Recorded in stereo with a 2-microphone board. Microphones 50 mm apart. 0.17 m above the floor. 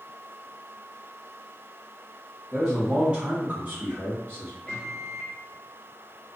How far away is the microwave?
About 1.4 m.